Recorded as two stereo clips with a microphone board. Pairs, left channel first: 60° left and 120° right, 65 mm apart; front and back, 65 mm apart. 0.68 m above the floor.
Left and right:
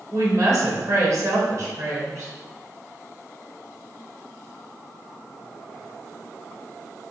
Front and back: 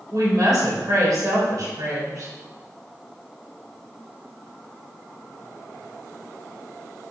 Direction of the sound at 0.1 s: 155° right.